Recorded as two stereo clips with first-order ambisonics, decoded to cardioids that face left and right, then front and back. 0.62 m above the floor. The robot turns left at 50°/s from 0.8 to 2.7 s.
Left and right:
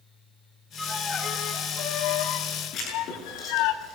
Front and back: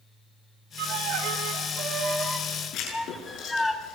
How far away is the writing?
About 8.5 m.